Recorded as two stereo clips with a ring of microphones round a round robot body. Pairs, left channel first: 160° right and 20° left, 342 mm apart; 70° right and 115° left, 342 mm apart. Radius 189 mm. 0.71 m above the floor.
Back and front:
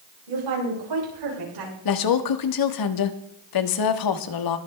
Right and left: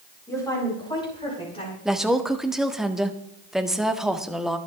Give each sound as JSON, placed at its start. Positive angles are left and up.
{"t": 0.3, "sound": "a woman speaking", "azimuth_deg": 15, "distance_m": 9.5}
{"t": 1.9, "sound": "a woman speaking", "azimuth_deg": -160, "distance_m": 1.4}